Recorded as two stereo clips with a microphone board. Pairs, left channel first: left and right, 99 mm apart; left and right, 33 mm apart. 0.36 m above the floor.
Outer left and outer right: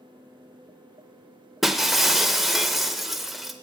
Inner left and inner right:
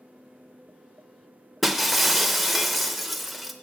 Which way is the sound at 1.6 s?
Centre (ahead or behind).